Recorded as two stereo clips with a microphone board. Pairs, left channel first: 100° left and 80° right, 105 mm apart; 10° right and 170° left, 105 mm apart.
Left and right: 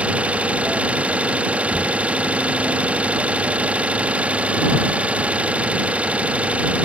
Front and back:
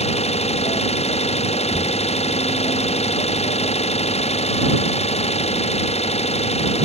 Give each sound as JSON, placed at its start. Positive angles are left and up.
{"t": 0.0, "sound": "an engine running", "azimuth_deg": 0}